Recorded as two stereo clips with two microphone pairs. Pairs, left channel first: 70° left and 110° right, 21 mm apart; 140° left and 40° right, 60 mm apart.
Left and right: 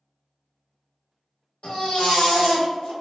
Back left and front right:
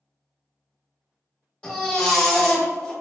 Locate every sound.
1.6 s a baby crying: 70° left, 1.5 m